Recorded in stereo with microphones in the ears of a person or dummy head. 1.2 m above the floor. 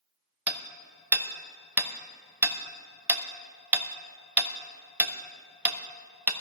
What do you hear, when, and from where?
0.5 s hammering: 10° right (ahead or behind), 0.7 m